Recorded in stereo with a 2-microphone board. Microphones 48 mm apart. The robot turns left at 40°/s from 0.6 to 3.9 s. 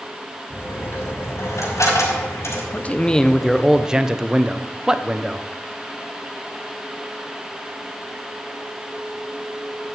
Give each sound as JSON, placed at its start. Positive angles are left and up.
{"t": 0.5, "sound": "a dropped coin", "side_deg": 40, "distance_m": 5.0}
{"t": 2.7, "sound": "a man speaking", "azimuth_deg": 35, "distance_m": 0.7}